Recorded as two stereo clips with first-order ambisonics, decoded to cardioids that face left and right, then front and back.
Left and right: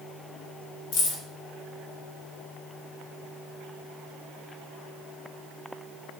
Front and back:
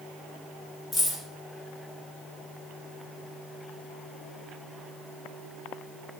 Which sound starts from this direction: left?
Keys jangling, at 0.9 s.